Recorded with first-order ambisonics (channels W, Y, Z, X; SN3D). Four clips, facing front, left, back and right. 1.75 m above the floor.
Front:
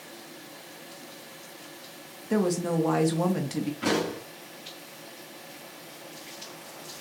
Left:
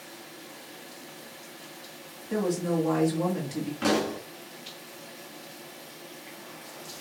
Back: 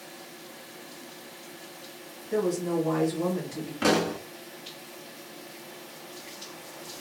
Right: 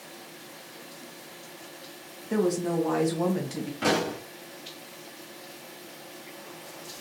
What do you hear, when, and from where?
2.3 s a woman speaking: 15° right, 1.3 m
3.8 s a pop: straight behind, 1.5 m